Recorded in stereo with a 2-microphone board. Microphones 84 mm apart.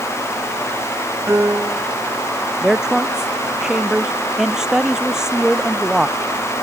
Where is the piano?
30° right (ahead or behind).